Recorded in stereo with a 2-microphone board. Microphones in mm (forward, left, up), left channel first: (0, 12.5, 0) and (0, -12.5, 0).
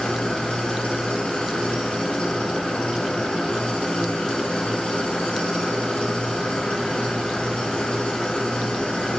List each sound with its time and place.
0.0 s an engine running: 50° left (ahead or behind), 6 m